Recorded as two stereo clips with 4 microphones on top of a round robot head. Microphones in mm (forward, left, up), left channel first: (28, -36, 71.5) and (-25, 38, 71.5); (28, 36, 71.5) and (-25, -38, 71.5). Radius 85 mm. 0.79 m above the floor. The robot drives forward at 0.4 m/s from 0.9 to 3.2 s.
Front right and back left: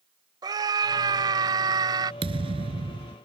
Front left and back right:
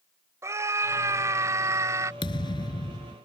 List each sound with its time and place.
0.4 s a scream: 175° left
2.2 s a thud: 95° left; by 3.2 s 100° left